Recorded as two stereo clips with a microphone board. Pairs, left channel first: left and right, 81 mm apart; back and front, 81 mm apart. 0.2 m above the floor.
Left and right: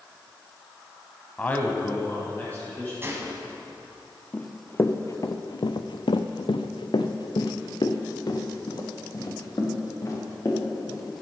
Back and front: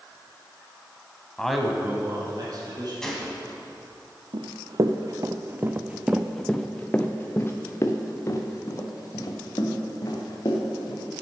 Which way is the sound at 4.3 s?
20° left.